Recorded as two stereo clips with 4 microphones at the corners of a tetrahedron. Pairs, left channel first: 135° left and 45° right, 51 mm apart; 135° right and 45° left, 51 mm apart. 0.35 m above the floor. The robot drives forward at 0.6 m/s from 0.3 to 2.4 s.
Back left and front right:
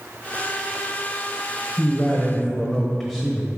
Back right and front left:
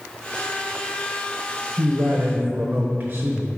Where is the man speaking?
30° left, 1.2 m; by 3.5 s 45° left, 1.0 m.